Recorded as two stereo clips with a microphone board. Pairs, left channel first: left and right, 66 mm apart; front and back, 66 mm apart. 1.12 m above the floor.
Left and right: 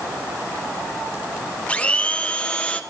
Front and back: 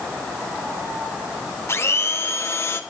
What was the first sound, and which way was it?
A blender, 25° left.